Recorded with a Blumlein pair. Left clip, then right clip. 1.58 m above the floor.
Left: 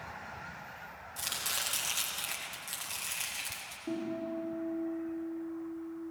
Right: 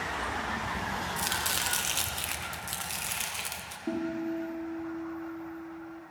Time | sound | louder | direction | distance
1.2 | chopping | right 2 dB | 15° right | 1.4 m
3.9 | a guitar | right 4 dB | 30° right | 3 m